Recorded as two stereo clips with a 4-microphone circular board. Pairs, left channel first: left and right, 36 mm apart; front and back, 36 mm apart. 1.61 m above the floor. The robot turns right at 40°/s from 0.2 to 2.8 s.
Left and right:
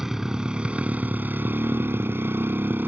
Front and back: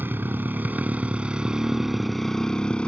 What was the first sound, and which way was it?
A motorcycle, 165° right.